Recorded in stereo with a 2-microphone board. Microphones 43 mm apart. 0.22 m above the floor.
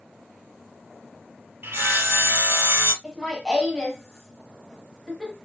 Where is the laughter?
10° left (ahead or behind), 1.5 m.